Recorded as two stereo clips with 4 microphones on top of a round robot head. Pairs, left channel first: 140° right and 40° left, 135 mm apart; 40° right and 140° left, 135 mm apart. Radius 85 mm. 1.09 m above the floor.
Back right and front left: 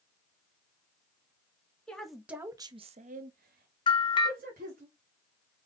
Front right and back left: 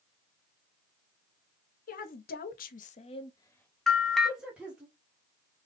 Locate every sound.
1.9 s a woman speaking: 60° right, 0.9 m; by 4.9 s 65° left, 1.5 m
3.9 s a bell: 120° right, 0.8 m